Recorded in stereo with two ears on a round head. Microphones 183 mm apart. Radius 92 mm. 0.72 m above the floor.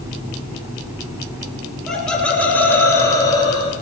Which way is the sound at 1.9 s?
5° left (ahead or behind).